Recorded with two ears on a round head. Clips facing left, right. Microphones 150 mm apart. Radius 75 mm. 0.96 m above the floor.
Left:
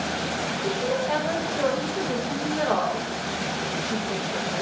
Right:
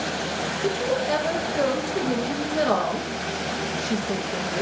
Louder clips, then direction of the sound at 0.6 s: Right 2 dB; 55° right (ahead or behind).